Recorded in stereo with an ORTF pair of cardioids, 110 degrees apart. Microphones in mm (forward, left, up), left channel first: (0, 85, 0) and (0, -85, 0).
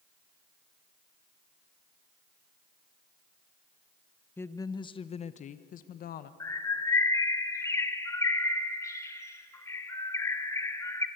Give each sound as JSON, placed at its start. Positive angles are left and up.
{"t": 4.4, "sound": "a woman speaking", "azimuth_deg": 10, "distance_m": 1.0}
{"t": 6.4, "sound": "a bird", "azimuth_deg": 20, "distance_m": 1.7}